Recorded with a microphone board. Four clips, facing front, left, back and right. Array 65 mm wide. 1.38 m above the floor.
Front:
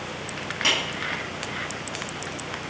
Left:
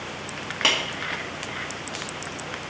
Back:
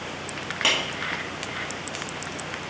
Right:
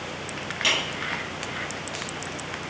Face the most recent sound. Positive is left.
turn(degrees=105)